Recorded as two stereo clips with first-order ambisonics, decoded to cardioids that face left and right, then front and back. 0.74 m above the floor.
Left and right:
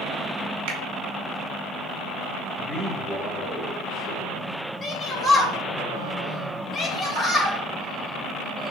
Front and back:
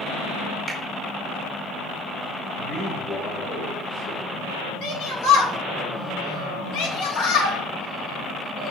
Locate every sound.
0.7 s a finger snap: 105° right, 0.8 m
2.6 s a man speaking: 45° left, 2 m
4.8 s a shout: 15° left, 1.2 m